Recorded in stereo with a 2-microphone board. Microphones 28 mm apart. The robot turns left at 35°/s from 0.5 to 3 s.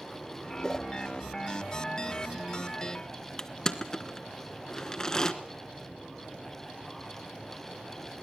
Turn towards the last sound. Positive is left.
turn(degrees=25)  # may be behind; listen again after turning